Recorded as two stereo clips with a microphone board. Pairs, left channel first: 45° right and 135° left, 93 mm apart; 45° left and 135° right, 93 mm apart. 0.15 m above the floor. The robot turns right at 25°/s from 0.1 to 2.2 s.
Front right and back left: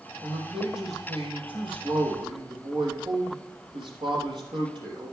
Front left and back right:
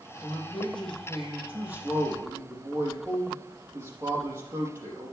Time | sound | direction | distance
0.2 | a man speaking | 115° left | 5 m